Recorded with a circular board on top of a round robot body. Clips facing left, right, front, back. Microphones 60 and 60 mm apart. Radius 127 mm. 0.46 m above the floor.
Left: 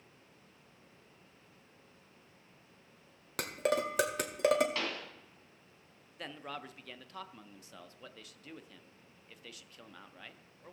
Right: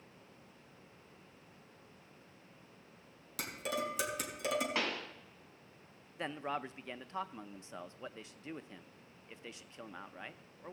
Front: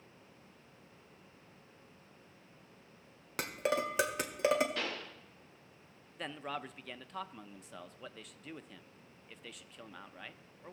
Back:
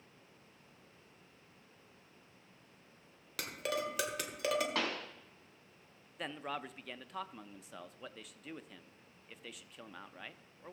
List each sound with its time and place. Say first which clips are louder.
3.4 s dishes clattering: left 6 dB, front 4 dB; 60° left, 1.5 m
4.8 s a pop: right 1 dB, back 2 dB; 160° right, 2 m
6.2 s a man speaking: right 5 dB, even; 95° right, 0.7 m